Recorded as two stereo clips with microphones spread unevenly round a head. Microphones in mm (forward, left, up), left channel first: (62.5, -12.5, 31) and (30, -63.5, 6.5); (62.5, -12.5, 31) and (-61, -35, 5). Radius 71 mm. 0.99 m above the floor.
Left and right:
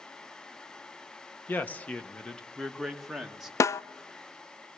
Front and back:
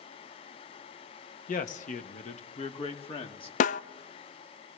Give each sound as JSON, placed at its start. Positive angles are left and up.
{"t": 1.5, "sound": "a man speaking", "azimuth_deg": -10, "distance_m": 1.5}
{"t": 3.6, "sound": "a snare drum", "azimuth_deg": 10, "distance_m": 0.5}